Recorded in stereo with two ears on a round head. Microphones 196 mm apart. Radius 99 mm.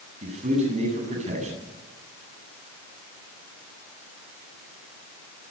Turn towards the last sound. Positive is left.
turn(degrees=-35)  # may be behind; listen again after turning